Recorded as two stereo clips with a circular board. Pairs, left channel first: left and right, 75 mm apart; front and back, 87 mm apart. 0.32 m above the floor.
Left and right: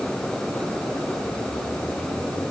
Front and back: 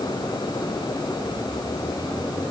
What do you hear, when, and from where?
Only background noise.